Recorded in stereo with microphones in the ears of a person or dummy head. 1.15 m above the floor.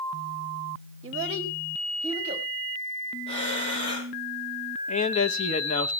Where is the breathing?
35° left (ahead or behind), 4 m.